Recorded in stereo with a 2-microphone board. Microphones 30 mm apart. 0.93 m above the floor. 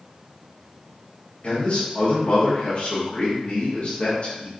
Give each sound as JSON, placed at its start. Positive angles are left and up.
{"t": 1.4, "sound": "a man speaking", "side_deg": 45, "distance_m": 1.2}